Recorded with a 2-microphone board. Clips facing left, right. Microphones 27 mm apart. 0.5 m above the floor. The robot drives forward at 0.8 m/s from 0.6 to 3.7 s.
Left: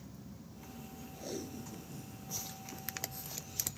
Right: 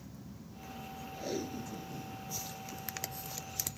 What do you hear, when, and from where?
1.1 s tape being pulled: 20° right (ahead or behind); by 2.2 s 25° right (ahead or behind)